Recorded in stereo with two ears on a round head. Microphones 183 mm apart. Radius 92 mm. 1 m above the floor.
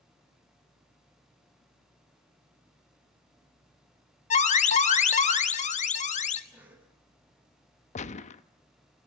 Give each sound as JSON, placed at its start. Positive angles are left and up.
{"t": 4.3, "sound": "an alarm", "side_deg": 35, "distance_m": 1.3}
{"t": 6.5, "sound": "a cough", "side_deg": -10, "distance_m": 8.0}
{"t": 8.0, "sound": "a gunshot", "side_deg": 35, "distance_m": 0.8}